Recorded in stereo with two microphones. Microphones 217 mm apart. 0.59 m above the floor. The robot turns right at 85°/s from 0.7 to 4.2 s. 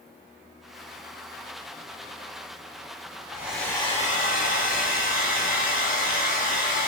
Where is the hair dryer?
20° right, 0.9 m; by 6.9 s 55° left, 0.9 m.